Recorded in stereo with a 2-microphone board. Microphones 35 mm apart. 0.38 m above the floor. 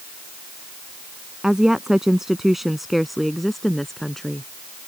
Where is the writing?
No writing in this recording.